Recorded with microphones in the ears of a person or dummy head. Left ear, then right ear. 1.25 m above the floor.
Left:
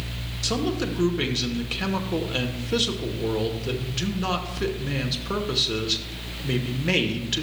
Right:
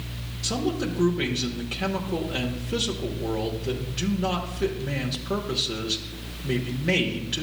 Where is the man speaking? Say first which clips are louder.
Left 1 dB; 20° left (ahead or behind), 1.0 m.